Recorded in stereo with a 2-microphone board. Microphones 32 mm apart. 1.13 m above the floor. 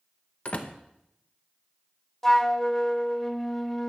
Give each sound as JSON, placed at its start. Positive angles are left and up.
{"t": 0.5, "sound": "a door slam", "side_deg": 40, "distance_m": 0.8}
{"t": 2.2, "sound": "a flute", "side_deg": 15, "distance_m": 0.5}